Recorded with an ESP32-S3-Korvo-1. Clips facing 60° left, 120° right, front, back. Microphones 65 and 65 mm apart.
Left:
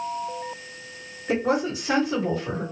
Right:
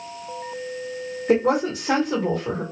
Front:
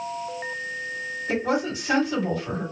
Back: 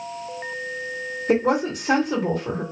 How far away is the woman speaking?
About 1.8 m.